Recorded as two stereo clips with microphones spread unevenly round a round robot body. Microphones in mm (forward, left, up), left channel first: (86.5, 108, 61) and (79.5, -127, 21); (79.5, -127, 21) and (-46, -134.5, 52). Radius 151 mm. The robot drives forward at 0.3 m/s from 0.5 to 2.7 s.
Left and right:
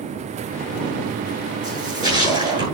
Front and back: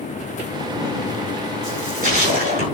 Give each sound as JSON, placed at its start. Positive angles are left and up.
{"t": 1.6, "sound": "a splash", "azimuth_deg": 160, "distance_m": 6.5}